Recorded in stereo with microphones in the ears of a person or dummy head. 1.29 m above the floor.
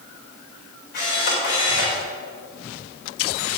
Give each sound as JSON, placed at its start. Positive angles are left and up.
{"t": 0.9, "sound": "a camera shutter", "side_deg": 55, "distance_m": 4.5}